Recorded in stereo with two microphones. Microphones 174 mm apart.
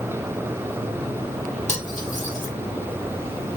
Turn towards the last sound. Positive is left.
turn(degrees=45)  # may be behind; listen again after turning